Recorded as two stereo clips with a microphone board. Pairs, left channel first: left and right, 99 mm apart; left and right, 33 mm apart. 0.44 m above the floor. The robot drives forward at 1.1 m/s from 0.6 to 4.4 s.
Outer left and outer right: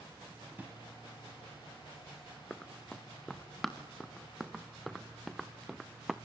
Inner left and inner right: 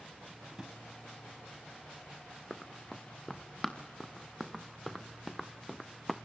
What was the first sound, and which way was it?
A drawer, 15° right (ahead or behind).